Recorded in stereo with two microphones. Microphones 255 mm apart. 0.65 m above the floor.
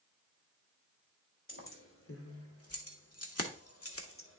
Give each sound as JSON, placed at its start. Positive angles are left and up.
{"t": 1.5, "sound": "keys jangling", "side_deg": 55, "distance_m": 1.8}